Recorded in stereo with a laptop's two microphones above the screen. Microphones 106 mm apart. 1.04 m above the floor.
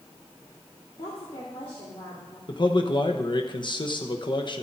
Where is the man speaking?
45° left (ahead or behind), 1.0 m.